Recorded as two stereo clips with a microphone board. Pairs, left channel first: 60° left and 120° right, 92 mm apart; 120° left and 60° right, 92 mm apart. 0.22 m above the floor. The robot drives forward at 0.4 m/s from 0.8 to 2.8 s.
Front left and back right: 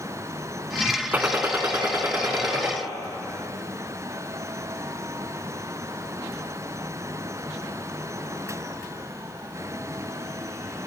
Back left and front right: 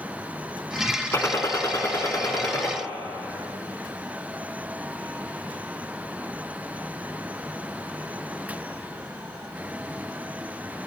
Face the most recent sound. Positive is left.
turn(degrees=175)